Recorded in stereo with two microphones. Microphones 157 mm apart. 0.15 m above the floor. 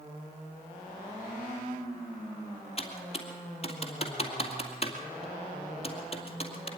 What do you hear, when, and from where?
2.8 s typing on a keyboard: 40° left (ahead or behind), 2 m